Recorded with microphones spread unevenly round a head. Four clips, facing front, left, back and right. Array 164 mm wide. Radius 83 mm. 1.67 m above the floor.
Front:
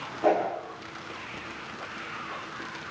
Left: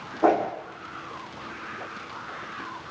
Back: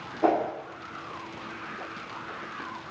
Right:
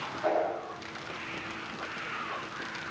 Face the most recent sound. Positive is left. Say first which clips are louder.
# left 7 dB, even
turn(degrees=115)